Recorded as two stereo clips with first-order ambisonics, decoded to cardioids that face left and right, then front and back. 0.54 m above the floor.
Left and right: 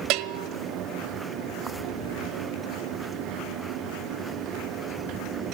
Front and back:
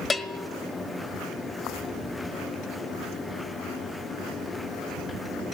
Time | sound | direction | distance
0.1 | a bell | 75° right | 1.2 m